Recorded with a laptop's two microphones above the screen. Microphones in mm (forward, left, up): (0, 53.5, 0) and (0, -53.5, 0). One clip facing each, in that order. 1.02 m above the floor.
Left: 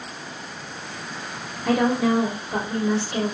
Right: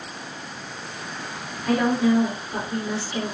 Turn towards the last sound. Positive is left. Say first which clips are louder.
# even
turn(degrees=65)  # may be behind; listen again after turning